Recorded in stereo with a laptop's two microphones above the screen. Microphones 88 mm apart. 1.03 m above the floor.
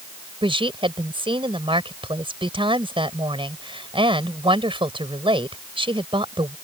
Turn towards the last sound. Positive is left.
turn(degrees=-85)